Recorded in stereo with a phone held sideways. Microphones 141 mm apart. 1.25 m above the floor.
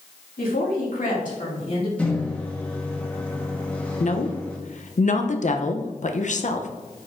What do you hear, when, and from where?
0.4 s a woman speaking: 80° left, 2.5 m; by 1.9 s 45° left (ahead or behind), 2.5 m
2.0 s a microwave: 10° left (ahead or behind), 1.3 m
4.0 s a woman speaking: 60° left (ahead or behind), 0.7 m